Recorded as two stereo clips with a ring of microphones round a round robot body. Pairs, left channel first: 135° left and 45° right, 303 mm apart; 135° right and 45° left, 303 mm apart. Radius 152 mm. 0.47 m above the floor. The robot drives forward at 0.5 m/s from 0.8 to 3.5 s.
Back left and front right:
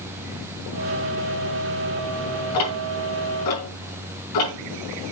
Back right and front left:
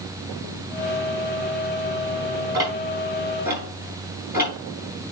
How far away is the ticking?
About 4.5 m.